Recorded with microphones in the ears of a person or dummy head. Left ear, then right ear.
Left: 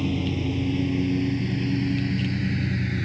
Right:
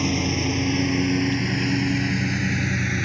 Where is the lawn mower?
60° right (ahead or behind); by 3.0 s 35° right (ahead or behind).